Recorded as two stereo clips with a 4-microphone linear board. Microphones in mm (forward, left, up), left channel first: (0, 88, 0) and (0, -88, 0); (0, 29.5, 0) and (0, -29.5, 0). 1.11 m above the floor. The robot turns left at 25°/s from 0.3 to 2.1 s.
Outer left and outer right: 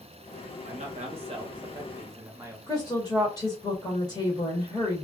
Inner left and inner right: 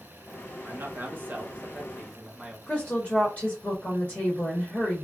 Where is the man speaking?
125° right, 1.0 m; by 2.6 s 160° right, 1.0 m.